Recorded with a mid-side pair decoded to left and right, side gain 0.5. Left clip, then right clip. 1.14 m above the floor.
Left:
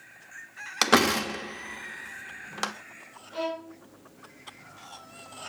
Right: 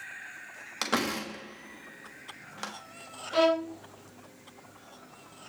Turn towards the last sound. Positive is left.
turn(degrees=-70)